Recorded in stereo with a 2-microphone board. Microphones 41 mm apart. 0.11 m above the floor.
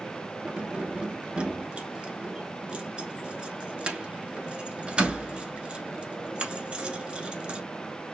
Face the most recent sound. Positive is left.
turn(degrees=-25)  # may be behind; listen again after turning